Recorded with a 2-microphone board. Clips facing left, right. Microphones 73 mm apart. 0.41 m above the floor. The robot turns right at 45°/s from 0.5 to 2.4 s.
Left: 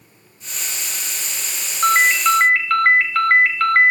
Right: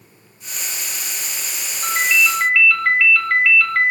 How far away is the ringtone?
About 1.0 m.